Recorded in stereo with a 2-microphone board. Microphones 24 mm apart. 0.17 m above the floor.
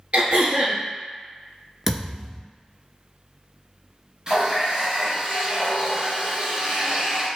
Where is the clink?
I don't hear a clink.